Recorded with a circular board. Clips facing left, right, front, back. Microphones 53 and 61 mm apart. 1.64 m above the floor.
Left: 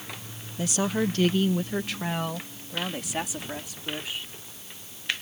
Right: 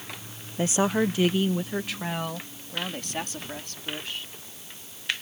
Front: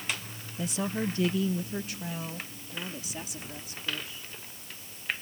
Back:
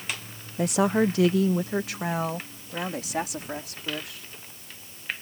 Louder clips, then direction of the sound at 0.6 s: Right 3 dB, back 9 dB; 145° right.